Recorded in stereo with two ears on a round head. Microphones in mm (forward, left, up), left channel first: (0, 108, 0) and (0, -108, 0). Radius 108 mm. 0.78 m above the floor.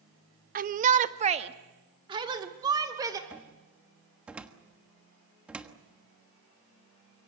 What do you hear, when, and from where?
0.6 s a shout: 35° right (ahead or behind), 0.7 m; by 3.2 s 15° right (ahead or behind), 2.5 m
3.3 s a cupboard door: 5° right (ahead or behind), 1.3 m